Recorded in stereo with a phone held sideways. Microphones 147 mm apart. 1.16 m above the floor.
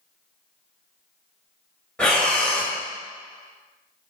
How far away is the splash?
I don't hear a splash.